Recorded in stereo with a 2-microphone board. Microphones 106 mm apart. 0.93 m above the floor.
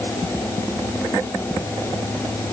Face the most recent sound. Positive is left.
No sound to turn to.